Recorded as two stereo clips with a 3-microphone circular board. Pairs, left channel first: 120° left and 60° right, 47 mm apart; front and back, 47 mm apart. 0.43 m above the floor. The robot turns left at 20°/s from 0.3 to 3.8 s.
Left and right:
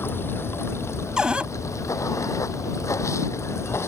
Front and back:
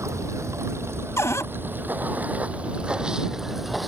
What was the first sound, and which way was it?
Running water, 160° left.